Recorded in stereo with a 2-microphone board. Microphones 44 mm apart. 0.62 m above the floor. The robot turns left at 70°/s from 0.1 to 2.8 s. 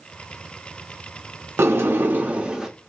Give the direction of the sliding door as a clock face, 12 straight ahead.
3 o'clock.